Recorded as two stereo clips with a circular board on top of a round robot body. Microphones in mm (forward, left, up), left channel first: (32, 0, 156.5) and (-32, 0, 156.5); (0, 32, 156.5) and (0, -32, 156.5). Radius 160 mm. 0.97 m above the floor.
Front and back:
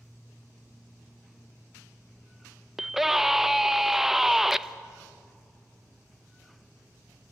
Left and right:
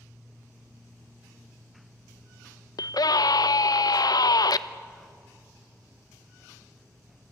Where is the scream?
95° left, 1.0 m.